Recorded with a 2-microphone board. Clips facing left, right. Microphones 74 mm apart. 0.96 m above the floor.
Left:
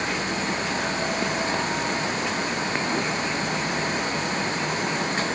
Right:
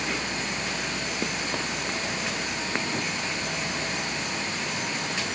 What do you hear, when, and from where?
Only background noise.